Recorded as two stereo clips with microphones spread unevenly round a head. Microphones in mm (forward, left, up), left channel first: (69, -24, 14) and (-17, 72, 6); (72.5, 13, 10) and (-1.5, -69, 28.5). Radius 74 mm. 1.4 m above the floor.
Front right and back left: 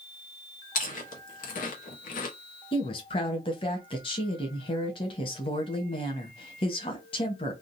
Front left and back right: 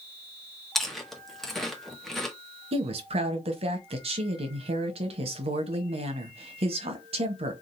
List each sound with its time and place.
0.8 s chewing: 40° right, 1.2 m
2.7 s a woman speaking: 105° right, 1.1 m